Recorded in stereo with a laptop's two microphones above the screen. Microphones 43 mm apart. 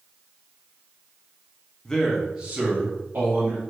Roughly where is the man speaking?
Left.